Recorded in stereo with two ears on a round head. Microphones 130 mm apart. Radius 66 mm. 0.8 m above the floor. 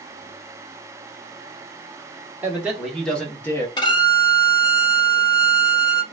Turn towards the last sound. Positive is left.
turn(degrees=35)  # may be behind; listen again after turning